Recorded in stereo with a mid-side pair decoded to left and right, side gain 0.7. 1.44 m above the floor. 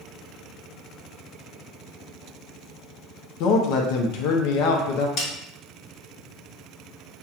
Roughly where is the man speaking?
Left.